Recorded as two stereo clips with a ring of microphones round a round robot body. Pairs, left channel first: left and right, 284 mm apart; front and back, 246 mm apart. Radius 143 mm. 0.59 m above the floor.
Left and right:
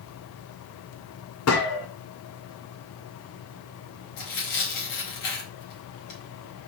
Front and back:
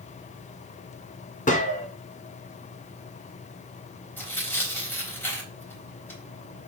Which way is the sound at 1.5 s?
60° left.